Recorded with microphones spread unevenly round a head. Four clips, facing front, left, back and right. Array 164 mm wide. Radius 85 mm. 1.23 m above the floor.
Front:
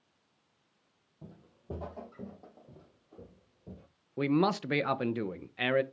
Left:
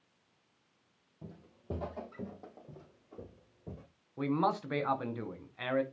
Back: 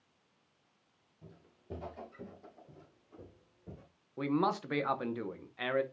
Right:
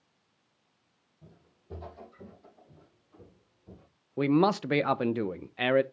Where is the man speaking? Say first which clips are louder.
Right 7 dB, front 4 dB; 60° right, 0.7 m.